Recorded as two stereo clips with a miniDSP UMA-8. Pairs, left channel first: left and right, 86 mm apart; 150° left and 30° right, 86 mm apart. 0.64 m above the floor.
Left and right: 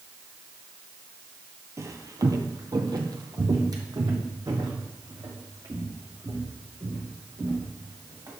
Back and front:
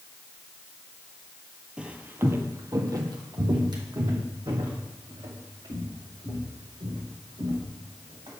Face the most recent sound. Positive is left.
turn(degrees=-40)